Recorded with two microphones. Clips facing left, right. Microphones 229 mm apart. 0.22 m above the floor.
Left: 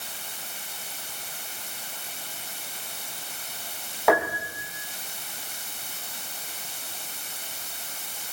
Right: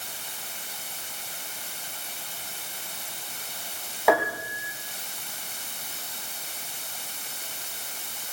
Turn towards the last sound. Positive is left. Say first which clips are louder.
# even
turn(degrees=0)  # may be behind; listen again after turning